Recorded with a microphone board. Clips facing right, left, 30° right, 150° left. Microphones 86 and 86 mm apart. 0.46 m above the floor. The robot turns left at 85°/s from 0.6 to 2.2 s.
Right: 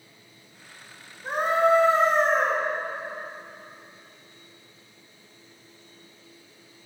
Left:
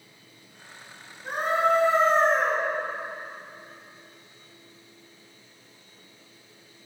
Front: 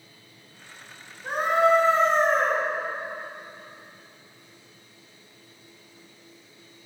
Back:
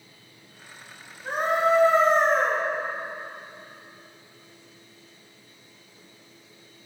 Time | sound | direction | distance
1.2 | a scream | 80° right | 1.6 m